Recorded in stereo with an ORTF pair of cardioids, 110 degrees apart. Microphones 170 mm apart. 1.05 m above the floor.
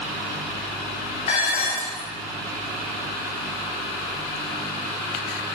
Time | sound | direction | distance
1.3 | dishes clattering | 45° left | 3.5 m